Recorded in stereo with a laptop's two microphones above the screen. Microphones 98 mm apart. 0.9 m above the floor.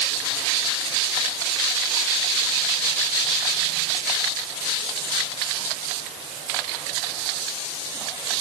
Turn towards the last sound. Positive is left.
No sound to turn to.